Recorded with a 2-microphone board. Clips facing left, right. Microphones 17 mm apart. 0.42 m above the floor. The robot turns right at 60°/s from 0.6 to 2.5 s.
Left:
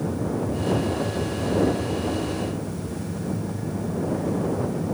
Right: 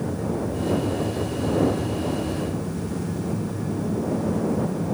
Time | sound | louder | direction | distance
0.0 | an aircraft | even | 45° left (ahead or behind) | ?